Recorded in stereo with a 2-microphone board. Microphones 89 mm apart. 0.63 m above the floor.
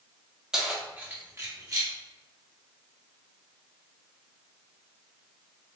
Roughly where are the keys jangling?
Centre.